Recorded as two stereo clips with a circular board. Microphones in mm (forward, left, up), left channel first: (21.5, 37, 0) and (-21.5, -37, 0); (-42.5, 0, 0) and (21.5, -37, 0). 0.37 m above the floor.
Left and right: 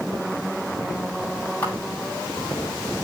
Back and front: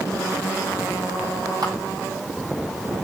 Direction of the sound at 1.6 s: 10° right.